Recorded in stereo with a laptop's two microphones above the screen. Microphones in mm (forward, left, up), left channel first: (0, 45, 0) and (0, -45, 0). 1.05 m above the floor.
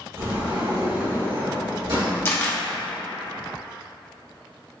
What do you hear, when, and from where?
0.2 s a sliding door: 70° right (ahead or behind), 1.9 m
2.2 s a camera shutter: 25° left (ahead or behind), 0.7 m